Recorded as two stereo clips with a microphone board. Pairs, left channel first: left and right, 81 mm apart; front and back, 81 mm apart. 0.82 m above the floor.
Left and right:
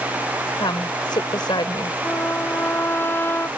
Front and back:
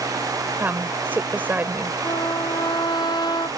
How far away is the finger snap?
I don't hear a finger snap.